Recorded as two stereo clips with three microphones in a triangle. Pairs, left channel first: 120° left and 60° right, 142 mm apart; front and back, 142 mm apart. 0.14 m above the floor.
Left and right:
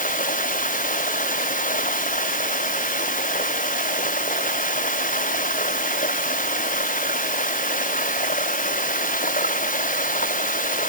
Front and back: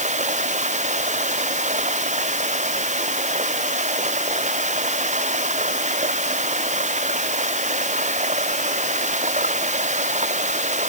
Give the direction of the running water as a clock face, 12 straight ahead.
7 o'clock.